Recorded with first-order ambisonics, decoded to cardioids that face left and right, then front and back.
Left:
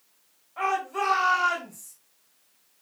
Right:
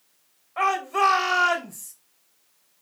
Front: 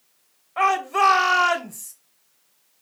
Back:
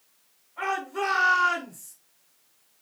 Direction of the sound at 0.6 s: 25° right.